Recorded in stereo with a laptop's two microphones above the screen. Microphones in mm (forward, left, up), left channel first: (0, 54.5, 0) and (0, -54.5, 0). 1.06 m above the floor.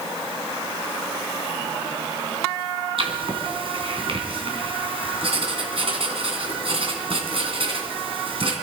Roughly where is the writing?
Right.